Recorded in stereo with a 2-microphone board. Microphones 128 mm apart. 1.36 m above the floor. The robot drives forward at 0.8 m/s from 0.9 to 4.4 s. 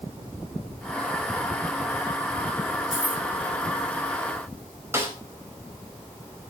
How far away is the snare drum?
About 4.5 m.